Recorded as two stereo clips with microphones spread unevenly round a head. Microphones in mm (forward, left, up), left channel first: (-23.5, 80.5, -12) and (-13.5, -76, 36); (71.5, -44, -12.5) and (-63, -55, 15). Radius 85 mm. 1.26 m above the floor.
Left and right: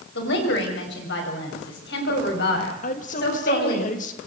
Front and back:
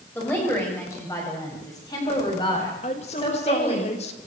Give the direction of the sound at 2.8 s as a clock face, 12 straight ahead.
10 o'clock.